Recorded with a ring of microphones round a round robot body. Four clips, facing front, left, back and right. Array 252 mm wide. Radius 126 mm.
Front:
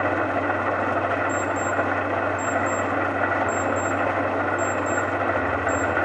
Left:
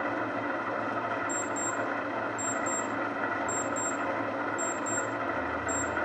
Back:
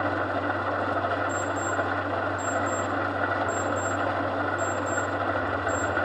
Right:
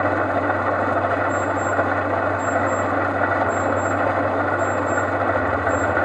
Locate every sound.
0.0 s an engine running: 75° right, 0.9 m
1.3 s an alarm clock: 115° left, 4 m